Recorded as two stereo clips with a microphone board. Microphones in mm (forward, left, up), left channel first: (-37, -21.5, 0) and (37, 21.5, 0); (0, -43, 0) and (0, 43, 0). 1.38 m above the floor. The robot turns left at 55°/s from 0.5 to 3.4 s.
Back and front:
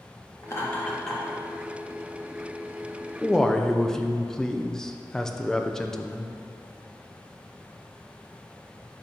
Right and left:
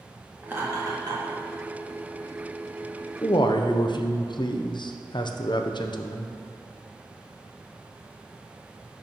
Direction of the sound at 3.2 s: 55° right.